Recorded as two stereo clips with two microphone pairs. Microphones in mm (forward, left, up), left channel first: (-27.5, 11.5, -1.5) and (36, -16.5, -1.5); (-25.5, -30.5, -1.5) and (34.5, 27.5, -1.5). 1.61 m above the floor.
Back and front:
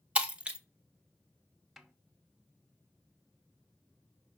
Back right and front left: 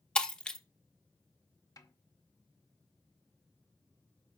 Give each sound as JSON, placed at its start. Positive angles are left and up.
{"t": 0.1, "sound": "breaking glass", "azimuth_deg": -75, "distance_m": 0.9}
{"t": 1.8, "sound": "a snare drum", "azimuth_deg": -110, "distance_m": 0.8}